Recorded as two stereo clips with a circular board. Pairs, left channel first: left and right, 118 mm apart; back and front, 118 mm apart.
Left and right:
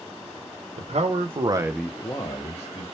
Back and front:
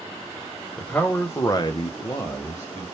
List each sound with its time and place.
0.8 s a man speaking: 100° right, 1.2 m; by 2.9 s 115° left, 1.3 m